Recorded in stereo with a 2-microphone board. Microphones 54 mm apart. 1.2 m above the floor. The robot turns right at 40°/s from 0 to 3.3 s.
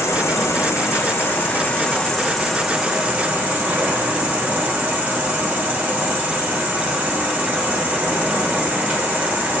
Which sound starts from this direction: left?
An insect, at 0.0 s.